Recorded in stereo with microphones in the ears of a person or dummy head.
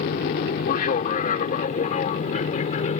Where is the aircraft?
45° left (ahead or behind); by 3.0 s 35° left (ahead or behind).